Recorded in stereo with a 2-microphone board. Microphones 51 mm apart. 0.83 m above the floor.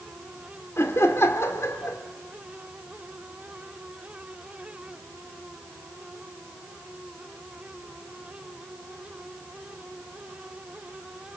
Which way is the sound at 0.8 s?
65° left (ahead or behind).